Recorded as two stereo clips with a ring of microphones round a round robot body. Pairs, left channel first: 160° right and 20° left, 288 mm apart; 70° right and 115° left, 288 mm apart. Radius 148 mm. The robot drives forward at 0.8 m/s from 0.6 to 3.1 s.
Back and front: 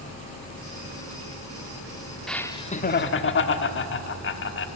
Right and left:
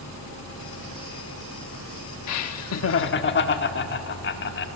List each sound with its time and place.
2.3 s laughter: 70° right, 1.0 m; by 4.7 s 115° right, 1.0 m